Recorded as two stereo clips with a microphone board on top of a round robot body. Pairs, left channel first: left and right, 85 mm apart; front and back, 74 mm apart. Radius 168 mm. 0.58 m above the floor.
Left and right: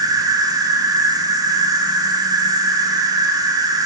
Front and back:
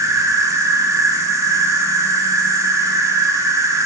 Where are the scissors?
I don't hear scissors.